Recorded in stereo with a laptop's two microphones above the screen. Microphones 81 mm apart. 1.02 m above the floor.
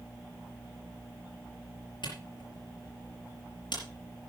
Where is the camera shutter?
75° left (ahead or behind), 5 m.